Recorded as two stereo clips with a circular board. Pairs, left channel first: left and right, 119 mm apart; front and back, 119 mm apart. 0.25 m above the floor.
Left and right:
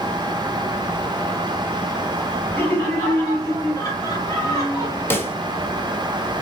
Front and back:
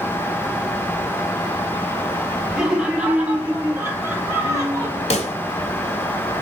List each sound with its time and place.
2.5 s laughter: 100° left, 1.6 m; by 5.0 s 130° left, 2.5 m
5.1 s a pop: 20° left, 0.6 m